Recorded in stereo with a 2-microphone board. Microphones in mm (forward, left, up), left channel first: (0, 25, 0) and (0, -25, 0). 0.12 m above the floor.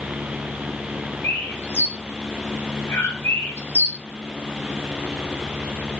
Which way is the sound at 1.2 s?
50° left (ahead or behind).